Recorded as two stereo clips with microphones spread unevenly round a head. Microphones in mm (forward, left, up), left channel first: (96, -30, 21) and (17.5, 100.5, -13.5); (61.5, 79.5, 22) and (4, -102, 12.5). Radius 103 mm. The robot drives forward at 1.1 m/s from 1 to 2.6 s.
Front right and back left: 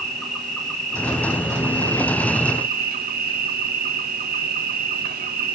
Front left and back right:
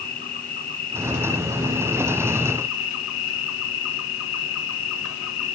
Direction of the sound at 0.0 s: 30° left.